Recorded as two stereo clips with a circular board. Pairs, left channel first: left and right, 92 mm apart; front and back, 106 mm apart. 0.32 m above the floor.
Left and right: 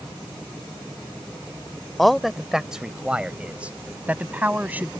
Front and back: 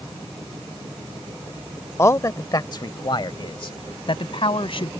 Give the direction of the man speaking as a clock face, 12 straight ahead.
12 o'clock.